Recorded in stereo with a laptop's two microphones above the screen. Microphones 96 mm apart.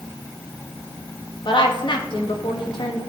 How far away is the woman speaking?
About 1.5 m.